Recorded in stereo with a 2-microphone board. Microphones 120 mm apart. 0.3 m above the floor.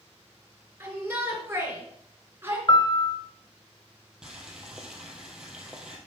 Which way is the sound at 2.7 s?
40° left (ahead or behind).